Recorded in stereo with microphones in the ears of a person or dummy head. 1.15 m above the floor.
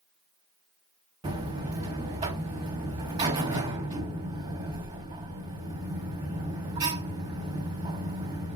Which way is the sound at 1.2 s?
20° right (ahead or behind).